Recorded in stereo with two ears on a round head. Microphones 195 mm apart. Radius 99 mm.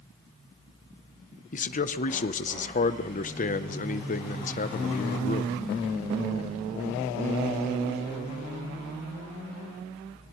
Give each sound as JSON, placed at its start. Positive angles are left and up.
{"t": 1.5, "sound": "a man speaking", "side_deg": 35, "distance_m": 0.8}